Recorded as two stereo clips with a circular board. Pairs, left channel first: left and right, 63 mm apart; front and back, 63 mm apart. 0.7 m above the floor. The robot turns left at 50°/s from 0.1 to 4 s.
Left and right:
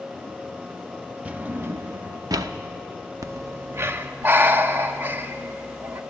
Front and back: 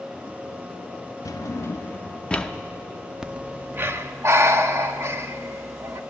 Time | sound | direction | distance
1.2 | a drawer | 20° right | 0.5 m
3.2 | breathing | 100° right | 0.5 m